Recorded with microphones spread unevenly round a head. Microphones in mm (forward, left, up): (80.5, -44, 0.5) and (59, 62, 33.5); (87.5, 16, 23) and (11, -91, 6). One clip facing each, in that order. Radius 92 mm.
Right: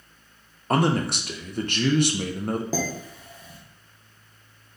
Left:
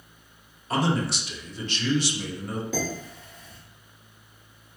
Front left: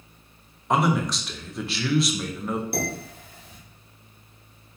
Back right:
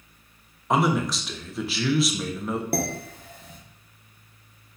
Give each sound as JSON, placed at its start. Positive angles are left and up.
{"t": 0.7, "sound": "a man speaking", "azimuth_deg": -35, "distance_m": 0.5}
{"t": 2.7, "sound": "dishes clattering", "azimuth_deg": -155, "distance_m": 0.7}